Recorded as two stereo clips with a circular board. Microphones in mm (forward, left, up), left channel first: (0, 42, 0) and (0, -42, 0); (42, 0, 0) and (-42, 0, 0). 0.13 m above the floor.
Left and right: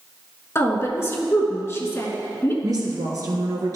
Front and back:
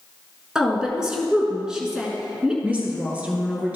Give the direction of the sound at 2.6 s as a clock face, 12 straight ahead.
4 o'clock.